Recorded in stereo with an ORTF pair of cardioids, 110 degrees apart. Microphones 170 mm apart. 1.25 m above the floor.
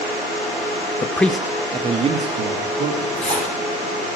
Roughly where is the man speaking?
Ahead left.